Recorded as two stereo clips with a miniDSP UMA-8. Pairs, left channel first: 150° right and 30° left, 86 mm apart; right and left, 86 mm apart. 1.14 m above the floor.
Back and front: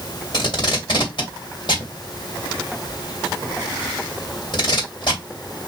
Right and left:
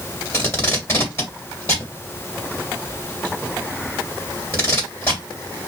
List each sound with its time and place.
0.3 s tape being pulled: 150° right, 1.5 m